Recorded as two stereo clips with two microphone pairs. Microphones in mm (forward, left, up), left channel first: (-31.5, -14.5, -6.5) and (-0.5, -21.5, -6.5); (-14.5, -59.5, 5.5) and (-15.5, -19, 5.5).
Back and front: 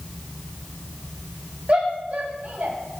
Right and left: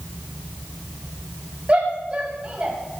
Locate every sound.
1.7 s a shout: 35° left, 5 m; by 2.8 s 25° left, 5 m